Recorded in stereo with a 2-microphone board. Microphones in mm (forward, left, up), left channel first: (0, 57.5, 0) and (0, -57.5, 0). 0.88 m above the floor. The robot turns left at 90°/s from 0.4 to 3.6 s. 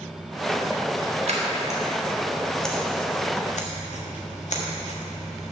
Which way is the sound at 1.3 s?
60° right (ahead or behind).